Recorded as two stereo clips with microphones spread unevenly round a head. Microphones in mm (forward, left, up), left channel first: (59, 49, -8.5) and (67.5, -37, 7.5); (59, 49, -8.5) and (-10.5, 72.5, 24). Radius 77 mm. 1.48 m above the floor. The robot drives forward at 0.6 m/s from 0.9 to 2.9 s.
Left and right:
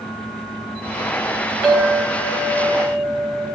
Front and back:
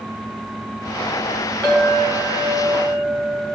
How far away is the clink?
About 2 m.